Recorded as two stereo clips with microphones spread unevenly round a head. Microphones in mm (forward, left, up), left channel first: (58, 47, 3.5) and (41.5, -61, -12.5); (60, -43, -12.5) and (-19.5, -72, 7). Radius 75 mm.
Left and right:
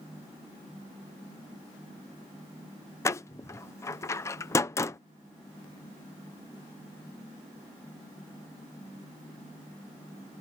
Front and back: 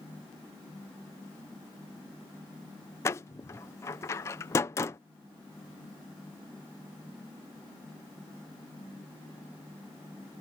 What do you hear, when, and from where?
3.0 s a door slam: 80° left